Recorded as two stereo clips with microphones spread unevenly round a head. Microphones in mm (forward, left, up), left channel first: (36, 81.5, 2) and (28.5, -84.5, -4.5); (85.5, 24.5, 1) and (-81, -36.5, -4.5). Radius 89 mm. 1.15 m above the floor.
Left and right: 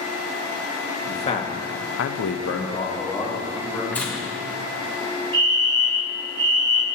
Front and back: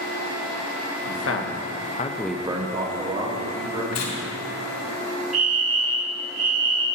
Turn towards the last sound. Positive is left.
turn(degrees=-135)